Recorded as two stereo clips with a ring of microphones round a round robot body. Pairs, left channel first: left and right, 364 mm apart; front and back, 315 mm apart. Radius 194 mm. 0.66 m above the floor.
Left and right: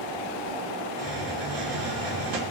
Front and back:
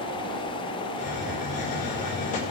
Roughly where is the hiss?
Ahead right.